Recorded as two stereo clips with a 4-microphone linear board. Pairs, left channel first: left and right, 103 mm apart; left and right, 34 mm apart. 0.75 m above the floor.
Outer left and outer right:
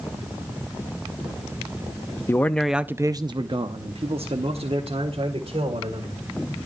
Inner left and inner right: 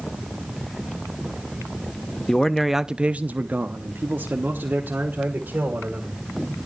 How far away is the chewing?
No chewing in this recording.